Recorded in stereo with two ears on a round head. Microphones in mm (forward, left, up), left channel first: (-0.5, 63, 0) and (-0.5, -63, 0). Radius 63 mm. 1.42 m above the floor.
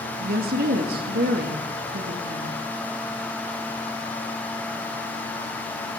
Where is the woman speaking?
85° right, 3 m.